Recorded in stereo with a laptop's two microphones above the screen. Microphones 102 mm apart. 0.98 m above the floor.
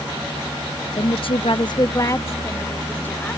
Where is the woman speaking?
50° left (ahead or behind); by 3.4 s 15° left (ahead or behind).